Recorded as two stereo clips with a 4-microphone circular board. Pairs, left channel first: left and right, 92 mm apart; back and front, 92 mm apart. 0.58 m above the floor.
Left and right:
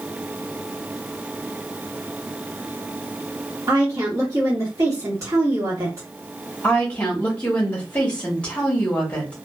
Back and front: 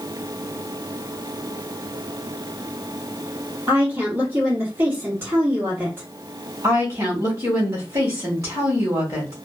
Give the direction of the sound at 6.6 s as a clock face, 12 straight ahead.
11 o'clock.